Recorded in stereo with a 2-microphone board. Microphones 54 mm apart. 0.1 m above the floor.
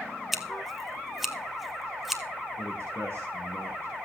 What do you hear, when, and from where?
0.3 s scissors: 5° right (ahead or behind), 1.6 m
2.6 s a man speaking: 50° right (ahead or behind), 4 m